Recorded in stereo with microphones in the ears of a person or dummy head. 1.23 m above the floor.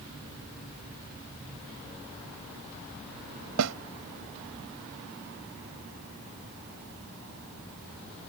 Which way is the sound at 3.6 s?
75° right (ahead or behind).